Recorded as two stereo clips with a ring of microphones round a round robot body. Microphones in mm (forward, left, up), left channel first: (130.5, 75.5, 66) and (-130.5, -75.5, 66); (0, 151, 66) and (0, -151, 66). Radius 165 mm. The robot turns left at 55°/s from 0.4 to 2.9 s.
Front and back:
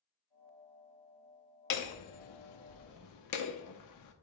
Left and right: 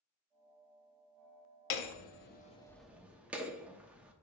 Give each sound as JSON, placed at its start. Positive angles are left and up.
{"t": 1.7, "sound": "hammering", "azimuth_deg": 60, "distance_m": 0.9}